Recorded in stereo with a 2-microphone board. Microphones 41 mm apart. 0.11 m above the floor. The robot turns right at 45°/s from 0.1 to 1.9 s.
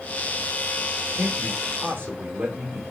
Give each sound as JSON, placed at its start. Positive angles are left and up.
{"t": 1.2, "sound": "a man speaking", "azimuth_deg": -80, "distance_m": 7.0}